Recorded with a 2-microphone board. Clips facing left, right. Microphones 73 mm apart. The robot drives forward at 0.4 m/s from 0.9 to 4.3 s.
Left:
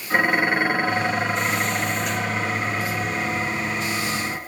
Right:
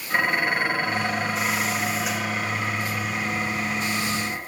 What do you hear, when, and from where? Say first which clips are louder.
0.1 s dishes clattering: left 3 dB; 25° left (ahead or behind), 3.5 m; by 4.4 s 35° left (ahead or behind), 2.5 m